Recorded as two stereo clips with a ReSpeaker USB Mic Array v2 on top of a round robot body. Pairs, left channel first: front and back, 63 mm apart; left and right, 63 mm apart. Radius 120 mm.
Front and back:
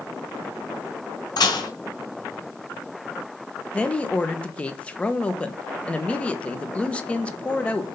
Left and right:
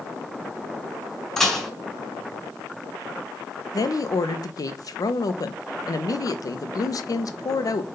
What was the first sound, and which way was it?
Dishes clattering, 10° left.